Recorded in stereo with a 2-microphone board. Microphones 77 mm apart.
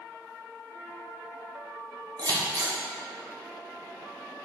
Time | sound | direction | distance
2.2 | scissors | 60° right (ahead or behind) | 0.8 m